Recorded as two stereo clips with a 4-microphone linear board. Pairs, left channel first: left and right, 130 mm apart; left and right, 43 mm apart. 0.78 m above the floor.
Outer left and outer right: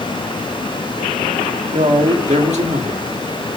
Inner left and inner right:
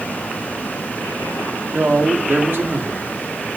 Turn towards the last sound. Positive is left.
turn(degrees=-60)  # may be behind; listen again after turning